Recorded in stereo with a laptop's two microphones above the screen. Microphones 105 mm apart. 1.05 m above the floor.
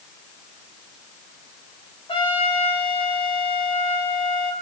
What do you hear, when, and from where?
2.1 s a trumpet: 55° left (ahead or behind), 4 m